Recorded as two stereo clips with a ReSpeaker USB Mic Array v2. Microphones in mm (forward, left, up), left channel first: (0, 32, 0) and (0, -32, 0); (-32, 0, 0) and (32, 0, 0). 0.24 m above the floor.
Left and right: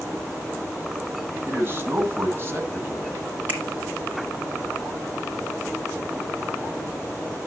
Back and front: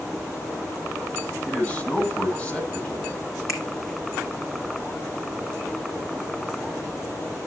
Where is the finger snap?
150° right, 2 m.